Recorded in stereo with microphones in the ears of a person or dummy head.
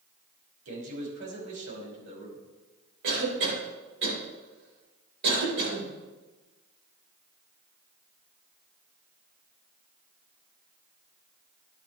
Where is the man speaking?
85° right, 5.5 m.